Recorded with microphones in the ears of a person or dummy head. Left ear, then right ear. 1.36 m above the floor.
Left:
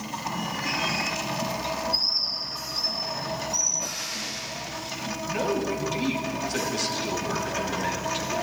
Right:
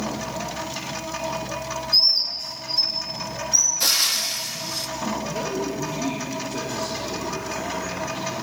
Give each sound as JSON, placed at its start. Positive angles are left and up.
{"t": 1.9, "sound": "a bird", "side_deg": -25, "distance_m": 4.5}
{"t": 3.8, "sound": "frying", "side_deg": -60, "distance_m": 1.2}
{"t": 5.3, "sound": "a man speaking", "side_deg": 55, "distance_m": 3.0}